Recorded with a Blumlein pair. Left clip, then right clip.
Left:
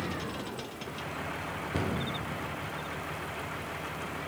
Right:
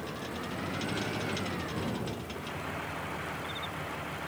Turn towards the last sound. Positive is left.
turn(degrees=35)